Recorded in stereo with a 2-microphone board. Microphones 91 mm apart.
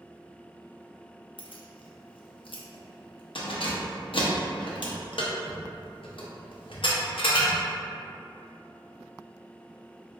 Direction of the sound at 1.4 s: 70° left (ahead or behind).